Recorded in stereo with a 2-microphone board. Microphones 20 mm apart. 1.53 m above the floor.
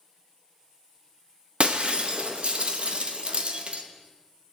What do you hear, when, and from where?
1.6 s breaking glass: 55° right (ahead or behind), 1.1 m